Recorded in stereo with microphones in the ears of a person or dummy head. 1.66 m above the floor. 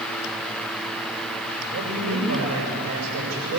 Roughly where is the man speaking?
Right.